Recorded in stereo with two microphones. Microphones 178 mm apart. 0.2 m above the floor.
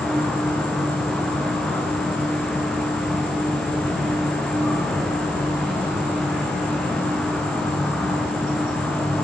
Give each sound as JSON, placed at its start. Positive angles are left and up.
{"t": 0.0, "sound": "an insect", "side_deg": 5, "distance_m": 6.0}